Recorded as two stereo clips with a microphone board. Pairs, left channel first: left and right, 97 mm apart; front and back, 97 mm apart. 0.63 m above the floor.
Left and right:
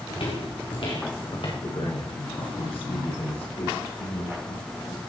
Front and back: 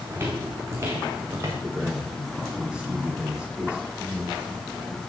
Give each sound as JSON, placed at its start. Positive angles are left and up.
{"t": 0.1, "sound": "footsteps", "azimuth_deg": 115, "distance_m": 2.5}
{"t": 1.6, "sound": "a man speaking", "azimuth_deg": 95, "distance_m": 8.5}